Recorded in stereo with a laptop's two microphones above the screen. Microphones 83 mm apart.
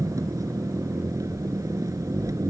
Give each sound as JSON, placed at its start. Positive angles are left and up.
{"t": 0.0, "sound": "an engine running", "side_deg": -40}